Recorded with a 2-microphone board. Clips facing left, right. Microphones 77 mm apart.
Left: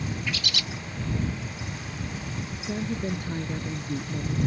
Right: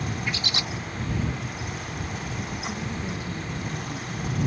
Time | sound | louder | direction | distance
0.3 | a bird | right 2 dB | 30° right (ahead or behind) | ?
2.6 | a woman speaking | left 6 dB | 55° left (ahead or behind) | ?